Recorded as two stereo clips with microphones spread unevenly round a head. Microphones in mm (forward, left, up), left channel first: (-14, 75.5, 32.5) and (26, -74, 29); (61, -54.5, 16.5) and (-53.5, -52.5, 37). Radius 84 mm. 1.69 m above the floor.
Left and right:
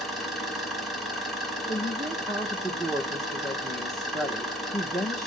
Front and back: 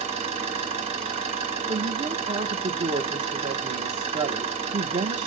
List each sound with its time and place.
0.0 s an engine running: 165° right, 1.7 m
1.7 s a woman speaking: 170° right, 0.8 m